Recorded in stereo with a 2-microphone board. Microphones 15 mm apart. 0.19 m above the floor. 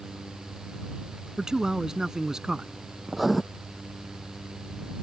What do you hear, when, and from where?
1.4 s a man speaking: 50° right (ahead or behind)
3.1 s writing: 10° right (ahead or behind)